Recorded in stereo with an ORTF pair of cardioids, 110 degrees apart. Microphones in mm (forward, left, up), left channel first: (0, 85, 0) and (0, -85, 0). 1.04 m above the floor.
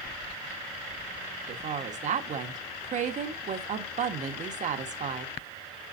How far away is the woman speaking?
About 1.3 m.